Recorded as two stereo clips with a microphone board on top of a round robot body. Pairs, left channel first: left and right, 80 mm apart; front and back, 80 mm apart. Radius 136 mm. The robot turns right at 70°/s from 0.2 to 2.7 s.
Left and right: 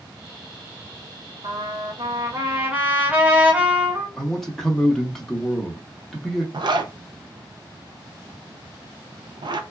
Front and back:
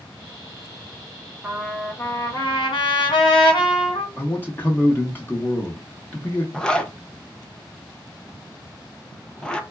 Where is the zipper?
80° right, 0.5 m.